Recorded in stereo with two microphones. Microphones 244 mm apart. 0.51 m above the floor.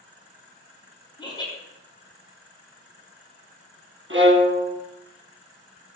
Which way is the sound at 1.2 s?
20° left (ahead or behind).